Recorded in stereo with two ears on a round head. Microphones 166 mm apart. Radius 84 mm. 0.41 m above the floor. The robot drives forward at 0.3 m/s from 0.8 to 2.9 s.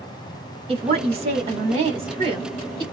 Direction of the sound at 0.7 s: 30° right (ahead or behind).